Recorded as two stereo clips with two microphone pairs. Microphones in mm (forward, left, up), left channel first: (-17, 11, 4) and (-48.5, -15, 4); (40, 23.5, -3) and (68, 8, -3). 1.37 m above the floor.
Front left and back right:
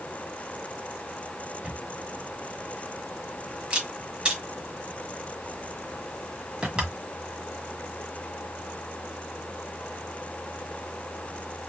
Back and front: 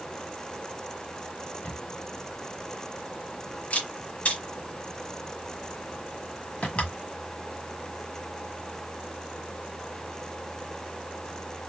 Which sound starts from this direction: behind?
A camera shutter, at 1.6 s.